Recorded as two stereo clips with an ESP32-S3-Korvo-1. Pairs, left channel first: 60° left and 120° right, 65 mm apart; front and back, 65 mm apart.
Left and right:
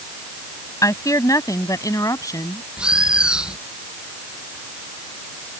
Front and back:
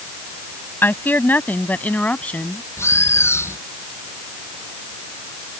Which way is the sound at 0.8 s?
50° left.